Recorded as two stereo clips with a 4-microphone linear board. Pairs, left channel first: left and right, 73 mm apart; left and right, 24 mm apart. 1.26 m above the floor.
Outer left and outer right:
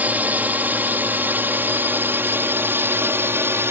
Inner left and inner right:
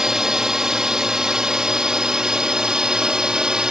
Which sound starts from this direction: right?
A drone, at 0.0 s.